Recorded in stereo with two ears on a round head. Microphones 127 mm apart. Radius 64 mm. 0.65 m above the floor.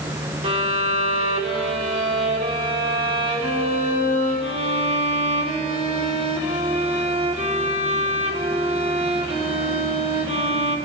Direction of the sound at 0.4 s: 40° right (ahead or behind).